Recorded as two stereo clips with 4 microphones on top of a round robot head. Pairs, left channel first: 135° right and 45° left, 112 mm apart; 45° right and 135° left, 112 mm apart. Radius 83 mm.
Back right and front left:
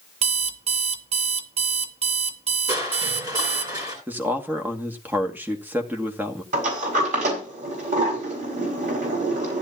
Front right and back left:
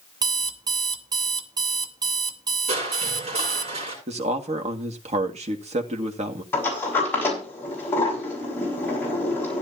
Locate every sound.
0.2 s an alarm clock: 80° left, 0.9 m
2.7 s crushing: 100° left, 9.5 m
4.1 s a man speaking: 120° left, 2 m
6.5 s a sliding door: 30° left, 6 m